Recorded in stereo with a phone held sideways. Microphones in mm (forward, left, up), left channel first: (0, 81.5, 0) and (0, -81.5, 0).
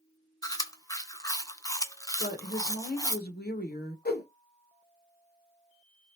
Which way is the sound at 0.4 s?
20° left (ahead or behind).